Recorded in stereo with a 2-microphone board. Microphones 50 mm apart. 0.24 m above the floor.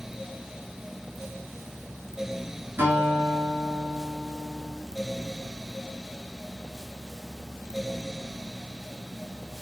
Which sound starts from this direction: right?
A guitar, at 2.8 s.